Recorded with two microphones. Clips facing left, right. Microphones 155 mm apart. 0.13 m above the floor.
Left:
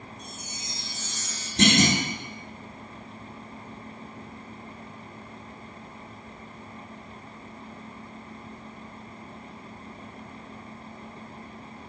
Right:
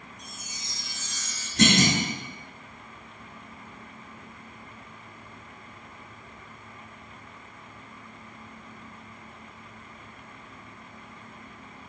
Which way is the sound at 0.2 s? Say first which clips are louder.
Left 4 dB; 30° left (ahead or behind).